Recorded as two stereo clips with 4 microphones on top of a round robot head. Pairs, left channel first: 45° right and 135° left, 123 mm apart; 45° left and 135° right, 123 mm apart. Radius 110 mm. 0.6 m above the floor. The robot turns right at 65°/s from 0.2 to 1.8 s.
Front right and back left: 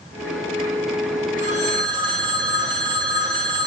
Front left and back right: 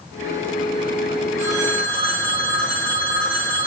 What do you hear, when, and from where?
1.4 s a phone ringing: 155° left, 5 m; by 3.7 s straight behind, 5 m